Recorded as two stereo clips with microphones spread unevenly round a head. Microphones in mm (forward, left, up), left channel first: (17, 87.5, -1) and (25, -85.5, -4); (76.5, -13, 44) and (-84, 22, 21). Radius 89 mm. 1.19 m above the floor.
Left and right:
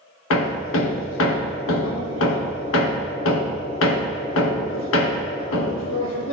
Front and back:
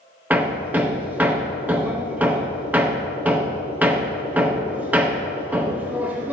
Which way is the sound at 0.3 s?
90° left.